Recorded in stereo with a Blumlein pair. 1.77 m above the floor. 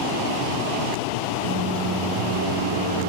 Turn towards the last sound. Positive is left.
turn(degrees=-60)